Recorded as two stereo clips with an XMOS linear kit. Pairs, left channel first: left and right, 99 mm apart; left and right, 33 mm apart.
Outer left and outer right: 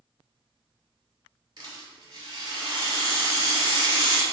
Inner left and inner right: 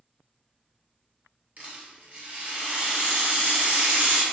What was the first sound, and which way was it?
A rattle, 45° right (ahead or behind).